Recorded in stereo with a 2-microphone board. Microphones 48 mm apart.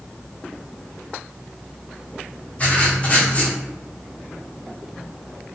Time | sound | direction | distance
2.6 | writing | 30° left (ahead or behind) | 0.6 m